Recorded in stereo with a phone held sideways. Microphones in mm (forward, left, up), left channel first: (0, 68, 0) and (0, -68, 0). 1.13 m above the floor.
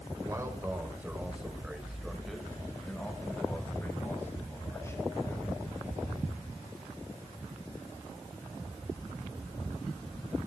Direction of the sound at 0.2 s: 25° right (ahead or behind).